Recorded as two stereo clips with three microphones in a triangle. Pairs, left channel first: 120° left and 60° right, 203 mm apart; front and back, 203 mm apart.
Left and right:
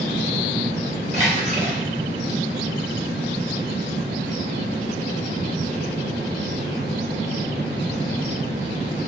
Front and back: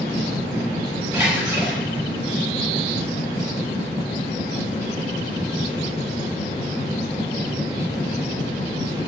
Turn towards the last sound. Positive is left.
turn(degrees=-110)